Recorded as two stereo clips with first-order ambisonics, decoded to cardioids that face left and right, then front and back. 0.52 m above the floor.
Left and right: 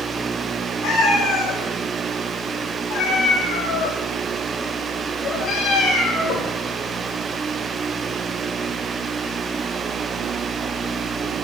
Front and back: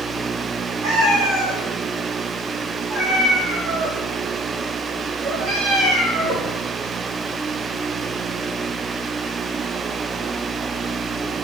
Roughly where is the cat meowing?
Behind left.